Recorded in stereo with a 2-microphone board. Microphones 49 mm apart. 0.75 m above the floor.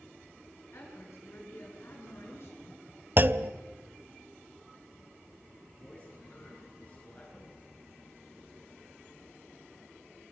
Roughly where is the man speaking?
Left.